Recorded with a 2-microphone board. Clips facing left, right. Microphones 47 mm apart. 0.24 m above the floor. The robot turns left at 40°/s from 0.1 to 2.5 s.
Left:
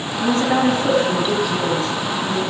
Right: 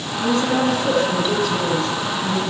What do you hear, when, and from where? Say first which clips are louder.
0.2 s a woman speaking: left 2 dB; 65° left, 1.8 m; by 2.4 s 20° right, 1.8 m